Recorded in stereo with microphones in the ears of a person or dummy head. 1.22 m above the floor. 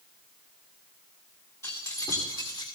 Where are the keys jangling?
20° left (ahead or behind), 2.5 m; by 2.6 s 30° left (ahead or behind), 2.5 m.